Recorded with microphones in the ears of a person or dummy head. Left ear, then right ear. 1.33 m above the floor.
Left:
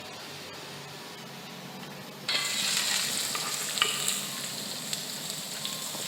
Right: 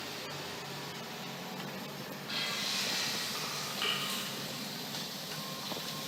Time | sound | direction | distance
2.3 | frying | 45° left (ahead or behind) | 0.6 m